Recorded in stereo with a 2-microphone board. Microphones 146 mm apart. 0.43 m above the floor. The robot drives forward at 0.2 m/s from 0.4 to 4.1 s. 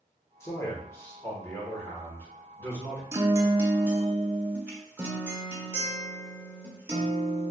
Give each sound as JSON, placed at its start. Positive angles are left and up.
{"t": 0.4, "sound": "a man speaking", "side_deg": 20, "distance_m": 0.9}
{"t": 3.1, "sound": "a guitar", "side_deg": -15, "distance_m": 0.5}